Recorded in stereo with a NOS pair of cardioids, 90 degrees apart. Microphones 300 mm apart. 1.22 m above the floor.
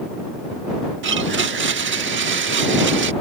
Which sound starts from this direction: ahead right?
A blender, at 1.0 s.